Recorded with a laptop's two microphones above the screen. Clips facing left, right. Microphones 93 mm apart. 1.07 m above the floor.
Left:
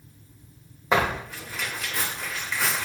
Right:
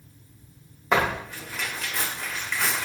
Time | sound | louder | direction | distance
0.9 | tearing paper | even | 5° left (ahead or behind) | 0.9 m